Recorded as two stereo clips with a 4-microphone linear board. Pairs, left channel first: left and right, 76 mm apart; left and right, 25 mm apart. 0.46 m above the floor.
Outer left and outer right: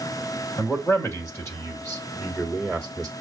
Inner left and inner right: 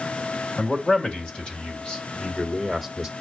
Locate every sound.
0.6 s a man speaking: 50° left (ahead or behind), 2.5 m; by 3.1 s 5° left (ahead or behind), 1.8 m